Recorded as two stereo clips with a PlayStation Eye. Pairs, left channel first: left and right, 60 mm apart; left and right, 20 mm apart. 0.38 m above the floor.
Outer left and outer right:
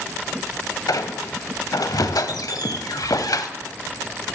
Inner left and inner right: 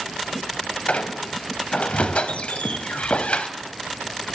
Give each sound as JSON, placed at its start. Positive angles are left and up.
{"t": 0.9, "sound": "a squeak", "side_deg": 75, "distance_m": 0.6}